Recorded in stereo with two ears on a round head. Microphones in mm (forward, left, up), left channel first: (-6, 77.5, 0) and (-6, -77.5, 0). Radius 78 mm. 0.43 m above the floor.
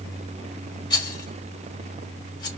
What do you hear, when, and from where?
0.9 s a rattle: 25° left (ahead or behind), 1.9 m